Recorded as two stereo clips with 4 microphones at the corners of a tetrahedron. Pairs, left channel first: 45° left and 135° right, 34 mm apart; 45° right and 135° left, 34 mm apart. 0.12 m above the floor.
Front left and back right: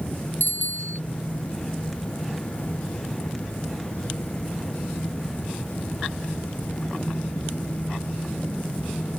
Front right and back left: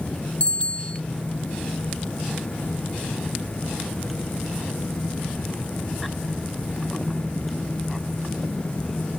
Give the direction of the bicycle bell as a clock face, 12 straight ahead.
11 o'clock.